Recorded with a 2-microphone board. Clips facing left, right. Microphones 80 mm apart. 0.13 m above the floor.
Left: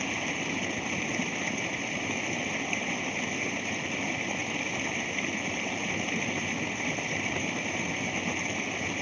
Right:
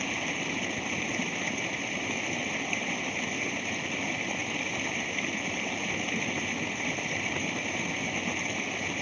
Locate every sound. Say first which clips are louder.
0.0 s running water: even; 5° left (ahead or behind)